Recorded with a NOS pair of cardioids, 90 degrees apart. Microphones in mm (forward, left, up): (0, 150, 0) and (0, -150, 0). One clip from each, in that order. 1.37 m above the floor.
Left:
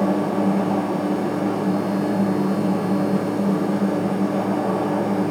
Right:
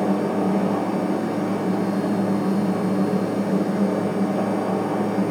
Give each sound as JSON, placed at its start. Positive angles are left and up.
{"t": 0.0, "sound": "a machine running", "azimuth_deg": 20, "distance_m": 1.3}